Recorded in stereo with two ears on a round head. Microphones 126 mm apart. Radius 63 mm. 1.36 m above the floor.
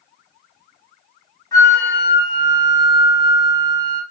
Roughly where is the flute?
Left.